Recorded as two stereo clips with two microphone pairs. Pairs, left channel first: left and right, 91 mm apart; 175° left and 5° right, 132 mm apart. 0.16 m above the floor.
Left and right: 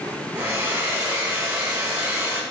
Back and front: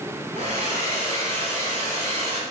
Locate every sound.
0.3 s a hair dryer: 40° right, 1.8 m